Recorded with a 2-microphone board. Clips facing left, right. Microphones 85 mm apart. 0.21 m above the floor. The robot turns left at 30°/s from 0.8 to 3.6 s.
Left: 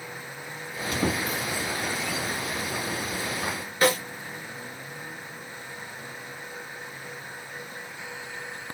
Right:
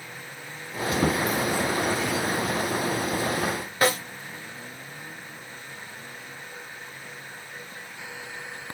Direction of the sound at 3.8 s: 35° right (ahead or behind).